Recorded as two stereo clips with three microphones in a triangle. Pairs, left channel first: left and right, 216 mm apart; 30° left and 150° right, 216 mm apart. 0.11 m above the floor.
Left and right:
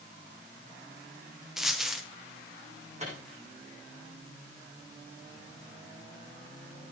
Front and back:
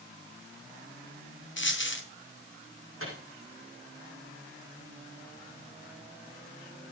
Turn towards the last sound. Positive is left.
turn(degrees=-145)